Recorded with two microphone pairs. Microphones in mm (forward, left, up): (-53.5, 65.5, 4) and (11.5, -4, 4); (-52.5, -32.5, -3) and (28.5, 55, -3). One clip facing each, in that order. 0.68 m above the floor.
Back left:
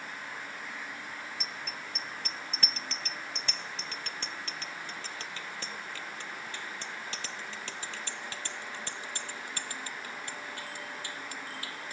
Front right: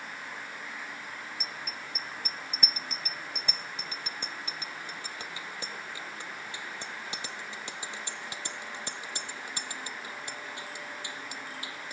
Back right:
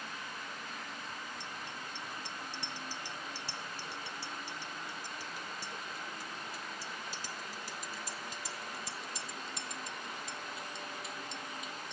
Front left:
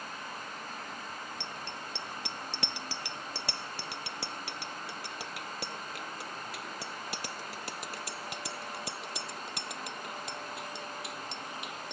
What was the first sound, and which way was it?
A bicycle bell, 35° left.